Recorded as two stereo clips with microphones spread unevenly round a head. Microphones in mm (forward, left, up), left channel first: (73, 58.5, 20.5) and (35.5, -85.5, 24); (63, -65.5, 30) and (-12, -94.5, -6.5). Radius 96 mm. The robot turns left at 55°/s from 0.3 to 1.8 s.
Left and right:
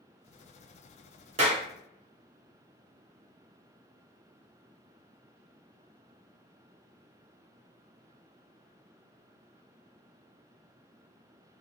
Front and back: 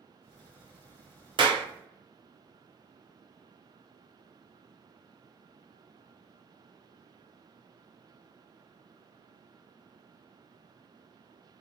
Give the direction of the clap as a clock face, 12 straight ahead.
5 o'clock.